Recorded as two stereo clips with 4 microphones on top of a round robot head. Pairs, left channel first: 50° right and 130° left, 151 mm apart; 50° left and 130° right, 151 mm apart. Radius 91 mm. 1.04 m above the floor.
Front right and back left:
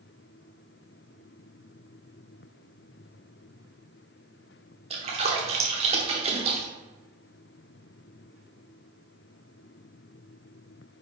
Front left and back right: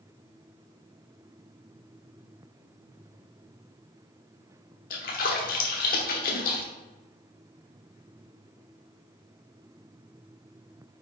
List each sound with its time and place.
4.9 s a splash: 80° left, 0.9 m